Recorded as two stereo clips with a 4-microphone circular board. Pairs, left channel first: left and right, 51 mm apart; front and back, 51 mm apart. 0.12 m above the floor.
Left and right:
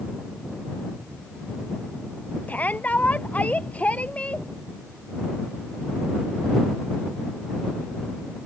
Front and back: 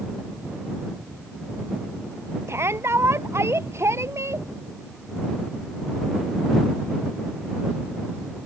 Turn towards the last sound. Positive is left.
turn(degrees=155)